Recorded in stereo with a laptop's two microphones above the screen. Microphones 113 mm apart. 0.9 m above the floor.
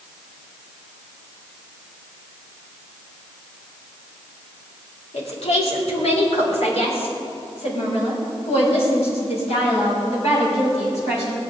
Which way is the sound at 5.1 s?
75° left (ahead or behind).